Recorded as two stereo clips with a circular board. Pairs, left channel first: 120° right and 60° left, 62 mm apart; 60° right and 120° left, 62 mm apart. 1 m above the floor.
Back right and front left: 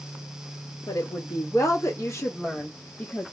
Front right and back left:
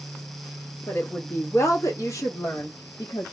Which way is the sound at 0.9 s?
115° right.